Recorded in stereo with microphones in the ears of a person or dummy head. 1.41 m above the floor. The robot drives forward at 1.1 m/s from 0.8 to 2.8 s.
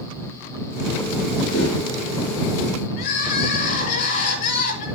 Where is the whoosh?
80° left, 6 m.